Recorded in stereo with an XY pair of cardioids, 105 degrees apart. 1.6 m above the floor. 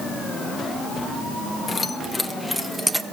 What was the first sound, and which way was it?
Keys jangling, 30° left.